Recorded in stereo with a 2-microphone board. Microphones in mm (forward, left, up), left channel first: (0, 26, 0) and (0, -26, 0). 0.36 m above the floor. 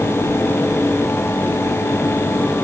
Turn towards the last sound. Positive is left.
No sound to turn to.